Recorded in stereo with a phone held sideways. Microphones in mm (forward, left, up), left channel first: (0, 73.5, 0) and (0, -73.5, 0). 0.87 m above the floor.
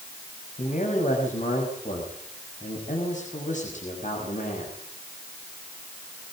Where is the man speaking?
65° left (ahead or behind), 6 m.